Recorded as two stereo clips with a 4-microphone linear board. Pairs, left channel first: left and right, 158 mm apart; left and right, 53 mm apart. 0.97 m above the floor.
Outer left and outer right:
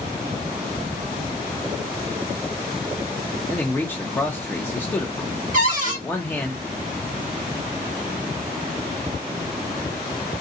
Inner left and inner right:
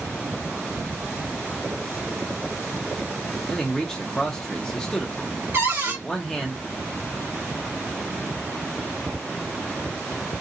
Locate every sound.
3.5 s a man speaking: 15° left (ahead or behind), 0.7 m
5.5 s a cupboard door: 50° right (ahead or behind), 1.2 m